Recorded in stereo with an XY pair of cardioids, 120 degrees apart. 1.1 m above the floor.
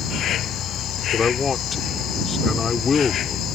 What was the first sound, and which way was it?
An insect, 60° left.